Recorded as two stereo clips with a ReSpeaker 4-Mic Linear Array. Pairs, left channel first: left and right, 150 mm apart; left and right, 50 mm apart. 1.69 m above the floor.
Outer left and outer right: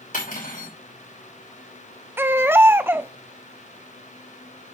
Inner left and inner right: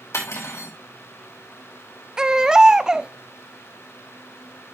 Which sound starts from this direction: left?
Cutlery clinking, at 0.1 s.